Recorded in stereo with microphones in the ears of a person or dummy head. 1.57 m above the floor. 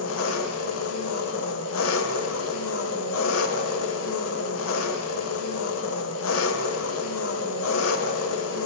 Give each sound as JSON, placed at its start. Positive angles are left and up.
{"t": 0.0, "sound": "an engine running", "side_deg": 80, "distance_m": 1.1}